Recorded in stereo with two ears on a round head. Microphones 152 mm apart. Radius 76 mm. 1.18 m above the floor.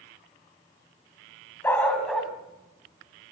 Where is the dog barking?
15° left (ahead or behind), 3 m; by 3.3 s 20° right (ahead or behind), 3.5 m.